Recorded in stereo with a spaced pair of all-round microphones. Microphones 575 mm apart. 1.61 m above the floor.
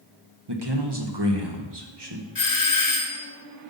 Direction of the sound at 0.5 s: 45° right (ahead or behind).